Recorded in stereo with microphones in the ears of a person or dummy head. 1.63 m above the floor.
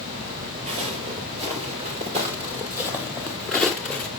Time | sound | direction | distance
0.7 | footsteps | 25° right (ahead or behind) | 2 m